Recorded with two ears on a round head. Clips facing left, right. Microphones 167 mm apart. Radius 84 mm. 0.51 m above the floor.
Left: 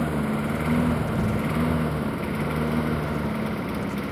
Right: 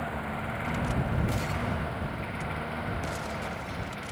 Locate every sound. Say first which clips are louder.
0.0 s a lawn mower: left 10 dB; 55° left (ahead or behind); by 4.1 s 65° left (ahead or behind)